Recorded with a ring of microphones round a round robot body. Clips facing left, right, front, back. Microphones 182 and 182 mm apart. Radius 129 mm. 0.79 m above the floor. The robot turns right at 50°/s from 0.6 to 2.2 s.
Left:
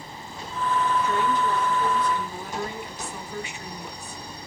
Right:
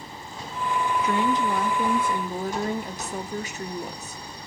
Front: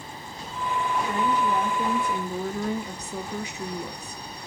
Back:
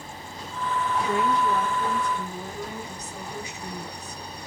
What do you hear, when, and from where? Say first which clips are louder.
1.0 s a woman speaking: right 1 dB, back 2 dB; 100° right, 1.6 m; by 4.2 s 45° right, 1.6 m